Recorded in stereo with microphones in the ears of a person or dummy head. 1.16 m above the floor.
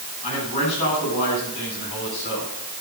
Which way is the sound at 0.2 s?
35° left (ahead or behind).